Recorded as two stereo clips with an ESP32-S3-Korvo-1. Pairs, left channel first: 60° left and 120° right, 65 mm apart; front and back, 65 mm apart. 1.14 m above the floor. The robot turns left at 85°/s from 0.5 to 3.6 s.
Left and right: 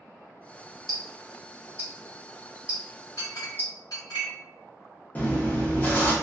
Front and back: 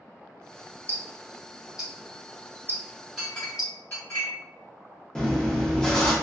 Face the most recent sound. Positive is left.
turn(degrees=65)